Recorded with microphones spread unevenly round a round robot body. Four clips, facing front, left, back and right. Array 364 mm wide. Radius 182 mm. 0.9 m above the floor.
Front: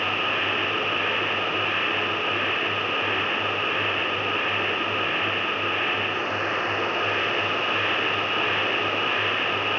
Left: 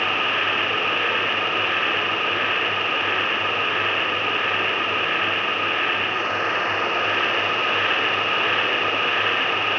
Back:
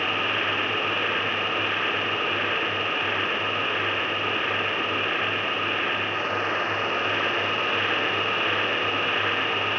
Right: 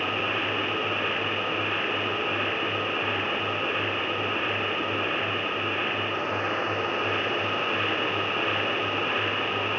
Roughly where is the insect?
Behind right.